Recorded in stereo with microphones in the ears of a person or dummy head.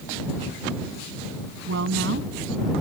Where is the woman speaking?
65° right (ahead or behind).